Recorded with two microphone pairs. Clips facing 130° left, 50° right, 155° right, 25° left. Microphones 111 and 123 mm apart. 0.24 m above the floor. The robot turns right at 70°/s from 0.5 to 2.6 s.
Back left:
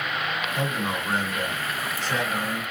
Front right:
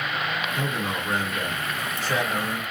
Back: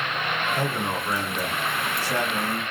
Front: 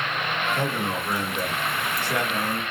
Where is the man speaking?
125° left, 1.3 m; by 2.6 s 90° right, 1.3 m.